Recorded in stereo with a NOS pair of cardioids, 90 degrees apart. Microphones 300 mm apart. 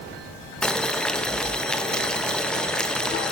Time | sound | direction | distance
0.6 | boiling | 5° left | 0.8 m